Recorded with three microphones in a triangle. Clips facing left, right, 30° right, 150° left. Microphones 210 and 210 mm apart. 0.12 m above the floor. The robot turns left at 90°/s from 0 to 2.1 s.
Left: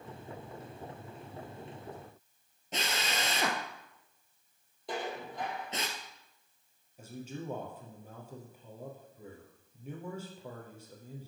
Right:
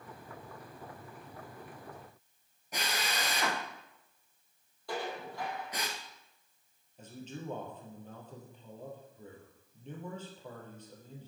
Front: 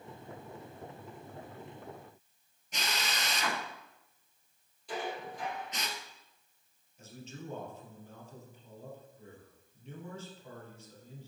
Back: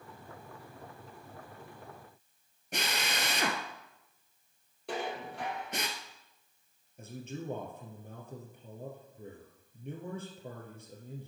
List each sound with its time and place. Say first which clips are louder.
2.7 s a drill: left 1 dB, back 2 dB; 150° left, 1.5 m
4.9 s dishes clattering: even, back 1 dB; 160° left, 2.5 m
7.0 s a man speaking: left 2 dB, back 5 dB; 170° left, 3 m